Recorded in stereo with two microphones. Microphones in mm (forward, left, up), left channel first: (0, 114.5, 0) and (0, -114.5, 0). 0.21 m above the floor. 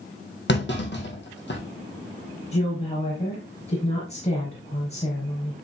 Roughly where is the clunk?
Left.